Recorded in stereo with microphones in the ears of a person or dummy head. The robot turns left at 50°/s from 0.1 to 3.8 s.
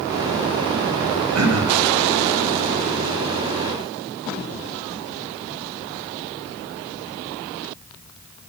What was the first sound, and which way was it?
Throat clearing, 85° right.